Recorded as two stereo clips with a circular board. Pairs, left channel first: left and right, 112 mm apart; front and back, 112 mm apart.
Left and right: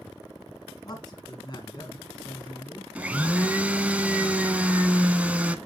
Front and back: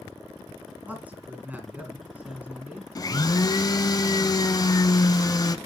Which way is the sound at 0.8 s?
110° left.